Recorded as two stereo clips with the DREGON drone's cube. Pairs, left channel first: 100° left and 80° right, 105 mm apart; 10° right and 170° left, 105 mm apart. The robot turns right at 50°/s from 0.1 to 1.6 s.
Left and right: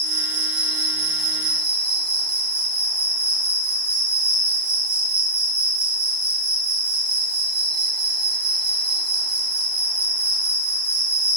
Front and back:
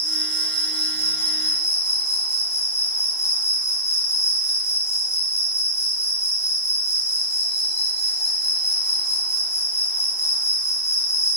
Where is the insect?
75° right, 2 m; by 11.4 s straight ahead, 2 m.